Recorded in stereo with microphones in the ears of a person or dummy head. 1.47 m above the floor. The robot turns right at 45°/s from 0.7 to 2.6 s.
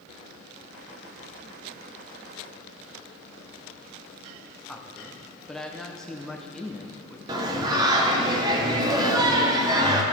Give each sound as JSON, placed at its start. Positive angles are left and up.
{"t": 4.7, "sound": "a man speaking", "side_deg": 0, "distance_m": 0.9}
{"t": 7.3, "sound": "singing", "side_deg": -20, "distance_m": 1.1}